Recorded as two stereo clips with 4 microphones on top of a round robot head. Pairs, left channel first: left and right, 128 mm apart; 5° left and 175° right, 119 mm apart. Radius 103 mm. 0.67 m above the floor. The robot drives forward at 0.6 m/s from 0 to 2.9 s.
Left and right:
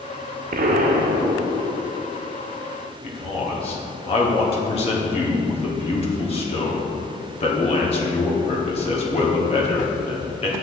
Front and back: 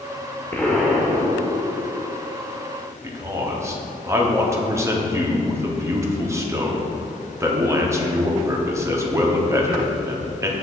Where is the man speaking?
120° left, 1.5 m.